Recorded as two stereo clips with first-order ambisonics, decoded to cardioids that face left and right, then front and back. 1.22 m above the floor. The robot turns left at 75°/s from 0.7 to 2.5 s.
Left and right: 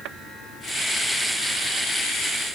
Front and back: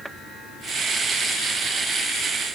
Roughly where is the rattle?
No rattle in this recording.